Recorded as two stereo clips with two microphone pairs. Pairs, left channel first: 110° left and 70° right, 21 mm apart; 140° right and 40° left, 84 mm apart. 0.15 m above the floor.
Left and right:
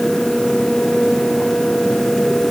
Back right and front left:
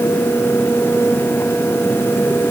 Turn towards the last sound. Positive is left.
No sound to turn to.